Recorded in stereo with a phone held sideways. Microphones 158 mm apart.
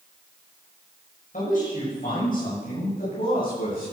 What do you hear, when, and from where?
1.3 s a man speaking: 60° left (ahead or behind), 6.5 m; by 3.9 s 65° left (ahead or behind), 9.5 m